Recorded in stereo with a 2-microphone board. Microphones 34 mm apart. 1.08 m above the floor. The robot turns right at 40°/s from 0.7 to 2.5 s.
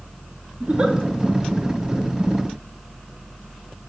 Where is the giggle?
45° right (ahead or behind), 0.8 m; by 0.9 s 35° right (ahead or behind), 0.8 m.